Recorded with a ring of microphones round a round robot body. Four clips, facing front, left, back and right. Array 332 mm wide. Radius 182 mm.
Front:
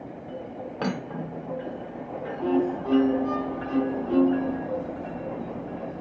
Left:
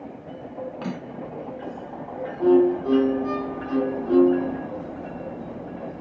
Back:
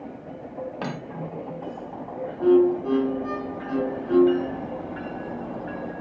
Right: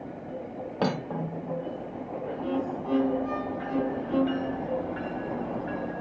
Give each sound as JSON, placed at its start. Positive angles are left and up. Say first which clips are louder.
{"t": 0.8, "sound": "cutlery clinking", "louder": "right 4 dB, front 2 dB", "azimuth_deg": -70, "distance_m": 2.0}
{"t": 2.4, "sound": "a violin", "louder": "left 15 dB, back 7 dB", "azimuth_deg": 110, "distance_m": 4.0}